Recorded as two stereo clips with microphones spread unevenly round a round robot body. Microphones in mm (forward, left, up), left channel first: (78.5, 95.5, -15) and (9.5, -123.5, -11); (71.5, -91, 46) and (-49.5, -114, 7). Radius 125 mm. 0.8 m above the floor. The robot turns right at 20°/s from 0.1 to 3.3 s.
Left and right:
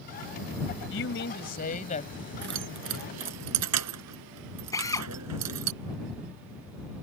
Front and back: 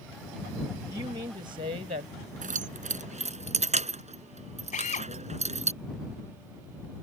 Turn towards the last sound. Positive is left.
turn(degrees=-5)